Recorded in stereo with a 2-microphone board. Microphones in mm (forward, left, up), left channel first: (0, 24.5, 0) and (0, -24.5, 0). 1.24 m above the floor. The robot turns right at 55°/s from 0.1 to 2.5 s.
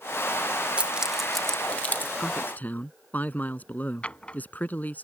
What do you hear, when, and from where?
0.8 s keys jangling: 25° right (ahead or behind); by 2.1 s 40° left (ahead or behind)
2.2 s a man speaking: 20° left (ahead or behind); by 5.0 s 35° left (ahead or behind)
4.0 s a drawer: 25° left (ahead or behind)